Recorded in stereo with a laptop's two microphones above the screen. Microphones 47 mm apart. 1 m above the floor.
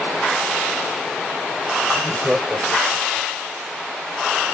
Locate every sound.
1.9 s laughter: 30° right (ahead or behind), 1.4 m; by 3.3 s 55° right (ahead or behind), 1.0 m